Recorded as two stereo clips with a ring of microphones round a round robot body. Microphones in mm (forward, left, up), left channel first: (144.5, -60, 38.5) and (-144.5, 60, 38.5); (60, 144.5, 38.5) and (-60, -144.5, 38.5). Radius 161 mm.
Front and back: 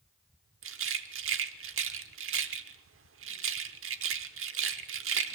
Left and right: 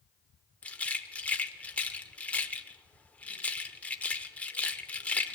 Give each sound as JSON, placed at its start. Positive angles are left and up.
{"t": 0.6, "sound": "a rattle", "azimuth_deg": 150, "distance_m": 0.9}